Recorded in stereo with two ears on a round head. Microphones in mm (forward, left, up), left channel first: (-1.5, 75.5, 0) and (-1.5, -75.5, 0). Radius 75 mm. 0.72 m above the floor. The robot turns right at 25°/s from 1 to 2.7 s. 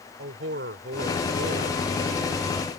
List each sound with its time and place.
0.2 s a man speaking: 70° right (ahead or behind); by 1.8 s 65° right (ahead or behind)